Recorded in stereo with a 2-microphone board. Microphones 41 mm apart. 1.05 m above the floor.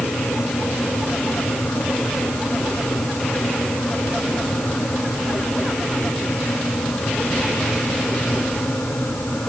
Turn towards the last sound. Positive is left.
No sound to turn to.